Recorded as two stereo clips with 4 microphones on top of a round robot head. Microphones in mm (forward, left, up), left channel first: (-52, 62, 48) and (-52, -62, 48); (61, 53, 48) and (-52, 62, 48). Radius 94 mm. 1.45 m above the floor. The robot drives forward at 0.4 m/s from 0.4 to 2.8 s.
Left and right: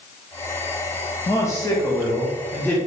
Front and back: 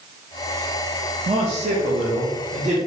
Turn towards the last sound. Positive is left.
turn(degrees=165)